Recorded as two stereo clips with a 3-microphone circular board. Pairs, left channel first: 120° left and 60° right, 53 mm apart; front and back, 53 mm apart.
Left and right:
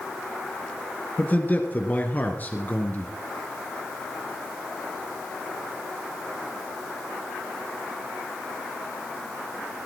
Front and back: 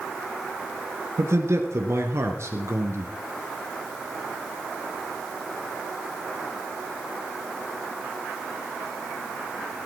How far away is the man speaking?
About 3 m.